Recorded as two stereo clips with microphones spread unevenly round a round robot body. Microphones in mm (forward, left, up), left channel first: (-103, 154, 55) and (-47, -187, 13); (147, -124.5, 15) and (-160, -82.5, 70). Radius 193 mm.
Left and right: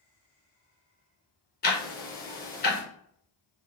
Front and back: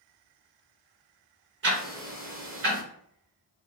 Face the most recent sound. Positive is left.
turn(degrees=145)